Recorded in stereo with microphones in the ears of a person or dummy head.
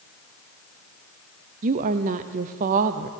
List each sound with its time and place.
1.6 s a woman speaking: 45° right (ahead or behind), 0.7 m